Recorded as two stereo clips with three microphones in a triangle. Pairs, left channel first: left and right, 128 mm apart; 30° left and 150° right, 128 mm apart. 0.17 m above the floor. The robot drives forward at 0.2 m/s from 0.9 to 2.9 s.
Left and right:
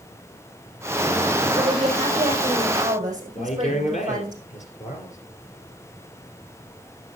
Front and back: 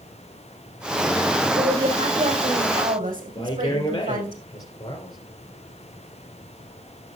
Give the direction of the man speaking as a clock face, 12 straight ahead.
9 o'clock.